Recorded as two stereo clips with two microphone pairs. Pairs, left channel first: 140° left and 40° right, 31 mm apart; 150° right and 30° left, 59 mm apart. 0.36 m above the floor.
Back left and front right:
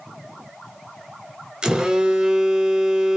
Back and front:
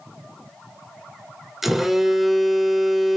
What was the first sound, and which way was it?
A phone buzzing, 55° right.